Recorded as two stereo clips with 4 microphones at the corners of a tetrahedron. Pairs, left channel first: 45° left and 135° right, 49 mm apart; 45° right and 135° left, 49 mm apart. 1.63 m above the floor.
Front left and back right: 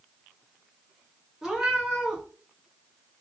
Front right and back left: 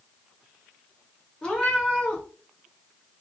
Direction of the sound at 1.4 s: 75° right.